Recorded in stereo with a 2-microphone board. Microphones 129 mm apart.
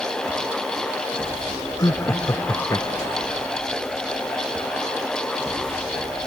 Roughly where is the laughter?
Left.